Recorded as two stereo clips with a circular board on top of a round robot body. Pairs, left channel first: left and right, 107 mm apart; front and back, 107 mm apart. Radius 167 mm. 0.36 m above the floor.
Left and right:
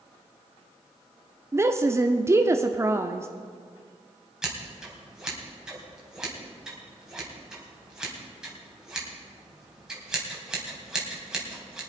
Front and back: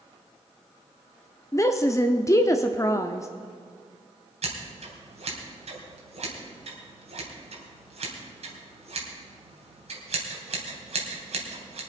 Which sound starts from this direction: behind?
Scissors, at 4.4 s.